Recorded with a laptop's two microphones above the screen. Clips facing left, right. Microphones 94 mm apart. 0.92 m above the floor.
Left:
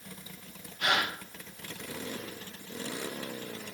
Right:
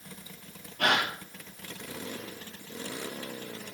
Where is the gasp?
80° right, 3.5 m.